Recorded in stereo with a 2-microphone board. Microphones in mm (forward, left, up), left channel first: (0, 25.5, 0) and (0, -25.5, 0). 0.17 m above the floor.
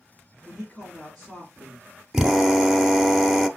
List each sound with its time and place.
0.5 s a man speaking: 5° left (ahead or behind), 1.8 m
2.1 s a drill: 5° right (ahead or behind), 0.6 m